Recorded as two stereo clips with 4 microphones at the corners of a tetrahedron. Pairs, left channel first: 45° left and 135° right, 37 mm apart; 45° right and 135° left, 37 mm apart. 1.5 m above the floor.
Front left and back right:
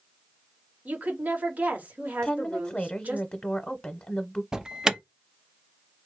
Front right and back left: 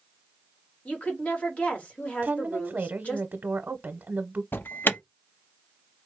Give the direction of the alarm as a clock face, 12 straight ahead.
2 o'clock.